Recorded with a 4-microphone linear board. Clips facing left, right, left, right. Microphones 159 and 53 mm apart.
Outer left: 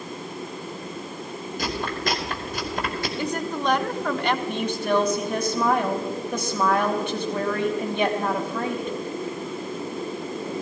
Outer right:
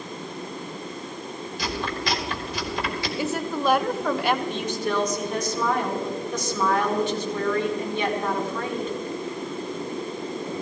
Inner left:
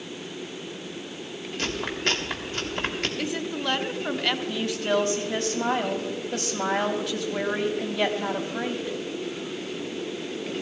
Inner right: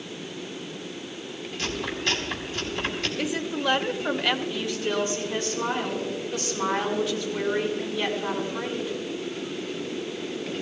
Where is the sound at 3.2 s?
5° right (ahead or behind), 1.0 m.